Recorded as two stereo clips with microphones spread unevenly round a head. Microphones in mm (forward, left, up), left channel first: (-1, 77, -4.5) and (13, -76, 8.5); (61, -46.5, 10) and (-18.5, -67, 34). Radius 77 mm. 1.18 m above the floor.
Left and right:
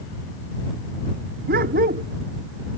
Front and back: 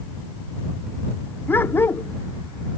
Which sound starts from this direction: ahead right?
A dog barking, at 1.5 s.